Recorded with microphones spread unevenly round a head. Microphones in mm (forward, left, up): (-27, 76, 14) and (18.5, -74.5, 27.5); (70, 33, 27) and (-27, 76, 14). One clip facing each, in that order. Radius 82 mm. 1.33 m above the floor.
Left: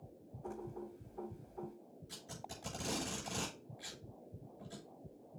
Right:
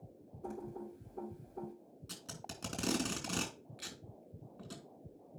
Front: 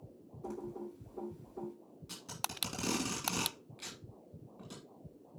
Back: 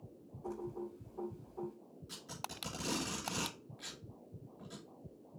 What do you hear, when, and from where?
0.4 s typing on a keyboard: 30° right, 6 m
2.1 s tape being pulled: 70° right, 3 m